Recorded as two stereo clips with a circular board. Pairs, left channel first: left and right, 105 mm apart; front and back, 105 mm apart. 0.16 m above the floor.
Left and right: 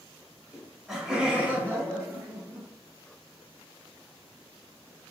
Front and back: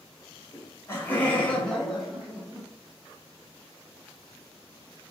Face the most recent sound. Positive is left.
turn(degrees=-105)